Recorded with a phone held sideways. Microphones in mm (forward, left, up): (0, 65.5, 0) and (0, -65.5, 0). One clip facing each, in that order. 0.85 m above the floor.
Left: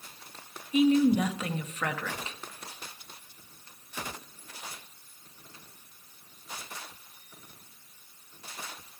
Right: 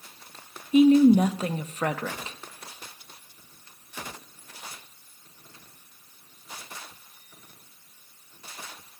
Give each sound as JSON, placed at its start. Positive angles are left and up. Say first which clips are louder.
{"t": 0.7, "sound": "a woman speaking", "louder": "right 6 dB", "side_deg": -35, "distance_m": 0.5}